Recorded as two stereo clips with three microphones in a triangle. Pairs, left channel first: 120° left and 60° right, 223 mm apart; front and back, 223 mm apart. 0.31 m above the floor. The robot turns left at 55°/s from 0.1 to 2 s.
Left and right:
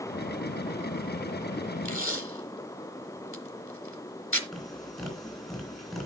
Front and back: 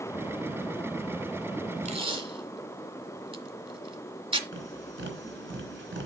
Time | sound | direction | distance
1.9 | tape being pulled | 120° left | 1.4 m
4.5 | tapping | 150° right | 3.5 m